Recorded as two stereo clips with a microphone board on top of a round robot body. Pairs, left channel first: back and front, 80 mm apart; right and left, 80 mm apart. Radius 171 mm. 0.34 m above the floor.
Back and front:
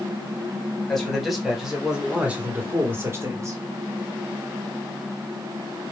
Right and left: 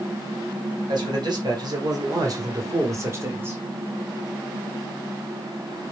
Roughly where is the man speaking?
Left.